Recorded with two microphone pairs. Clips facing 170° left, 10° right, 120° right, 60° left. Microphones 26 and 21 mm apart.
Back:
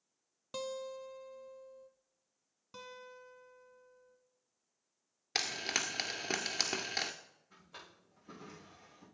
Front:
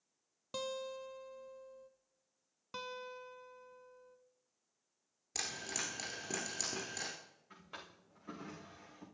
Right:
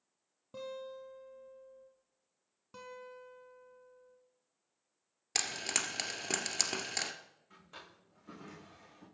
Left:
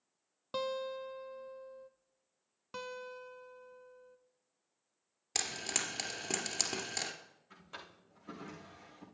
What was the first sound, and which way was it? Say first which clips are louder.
A guitar: even, left 7 dB; 75° left.